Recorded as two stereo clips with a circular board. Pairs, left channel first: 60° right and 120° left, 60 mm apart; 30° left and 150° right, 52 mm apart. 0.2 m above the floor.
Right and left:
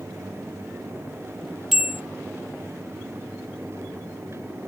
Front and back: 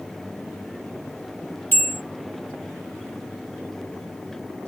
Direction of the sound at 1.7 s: 40° left.